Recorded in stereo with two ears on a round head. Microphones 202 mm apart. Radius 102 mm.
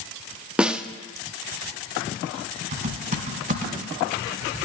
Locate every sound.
0.6 s a snare drum: 5° right (ahead or behind), 0.5 m
2.7 s typing on a keyboard: 35° right (ahead or behind), 2 m